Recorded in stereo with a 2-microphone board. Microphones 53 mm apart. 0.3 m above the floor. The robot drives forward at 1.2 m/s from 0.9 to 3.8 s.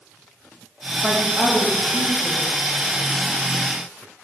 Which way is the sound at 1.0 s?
Centre (ahead or behind).